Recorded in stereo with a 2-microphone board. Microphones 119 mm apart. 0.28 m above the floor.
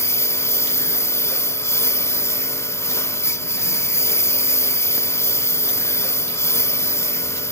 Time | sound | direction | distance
0.0 | a lawn mower | 25° left (ahead or behind) | ?